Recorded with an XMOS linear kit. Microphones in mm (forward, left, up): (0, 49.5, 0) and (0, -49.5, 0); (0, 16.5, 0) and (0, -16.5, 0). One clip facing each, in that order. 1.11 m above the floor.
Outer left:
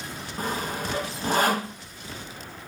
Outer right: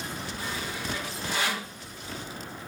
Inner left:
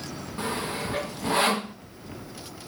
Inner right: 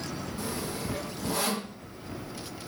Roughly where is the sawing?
Left.